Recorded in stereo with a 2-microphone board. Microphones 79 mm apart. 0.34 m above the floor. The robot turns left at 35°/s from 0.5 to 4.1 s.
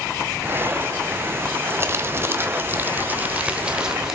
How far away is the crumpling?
About 1.1 m.